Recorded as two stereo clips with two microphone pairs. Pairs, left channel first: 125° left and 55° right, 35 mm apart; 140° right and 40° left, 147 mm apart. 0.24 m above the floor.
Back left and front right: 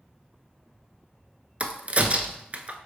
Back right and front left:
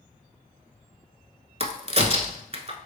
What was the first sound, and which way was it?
A crack, 5° right.